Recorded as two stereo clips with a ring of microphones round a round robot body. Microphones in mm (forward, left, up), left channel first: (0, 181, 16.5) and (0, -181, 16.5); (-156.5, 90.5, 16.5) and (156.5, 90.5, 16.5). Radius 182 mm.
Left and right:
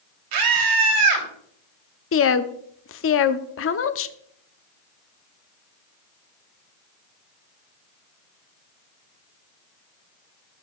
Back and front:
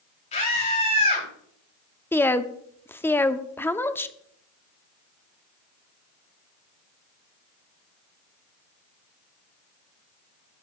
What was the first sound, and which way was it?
A scream, 110° right.